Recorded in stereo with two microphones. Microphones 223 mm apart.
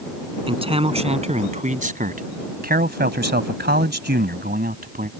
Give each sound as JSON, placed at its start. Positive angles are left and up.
{"t": 0.5, "sound": "a man speaking", "side_deg": -25}